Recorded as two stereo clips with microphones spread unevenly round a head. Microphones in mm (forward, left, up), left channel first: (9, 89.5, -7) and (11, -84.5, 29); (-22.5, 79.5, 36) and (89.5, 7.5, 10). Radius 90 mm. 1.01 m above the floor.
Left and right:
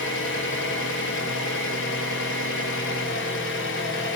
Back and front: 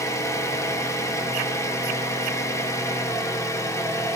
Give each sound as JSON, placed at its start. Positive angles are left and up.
{"t": 0.0, "sound": "an engine running", "azimuth_deg": 80, "distance_m": 2.5}